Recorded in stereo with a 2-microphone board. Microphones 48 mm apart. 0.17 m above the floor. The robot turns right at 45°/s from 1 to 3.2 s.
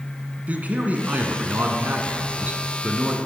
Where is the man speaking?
125° right, 1.3 m; by 3.1 s 25° right, 1.3 m.